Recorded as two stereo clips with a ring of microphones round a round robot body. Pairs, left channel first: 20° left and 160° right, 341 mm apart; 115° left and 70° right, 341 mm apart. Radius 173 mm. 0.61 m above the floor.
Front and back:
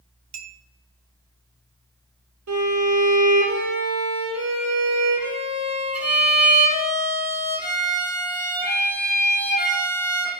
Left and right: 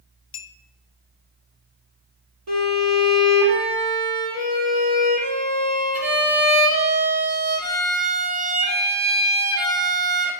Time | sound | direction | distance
0.3 | a clink | 165° left | 0.6 m
2.5 | a violin | 110° right | 3 m